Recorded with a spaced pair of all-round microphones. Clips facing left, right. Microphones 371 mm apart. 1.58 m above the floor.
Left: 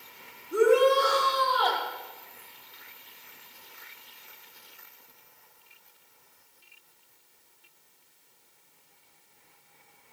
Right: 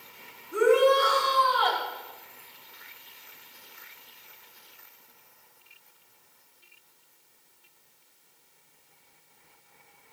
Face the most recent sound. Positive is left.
turn(degrees=60)  # may be behind; listen again after turning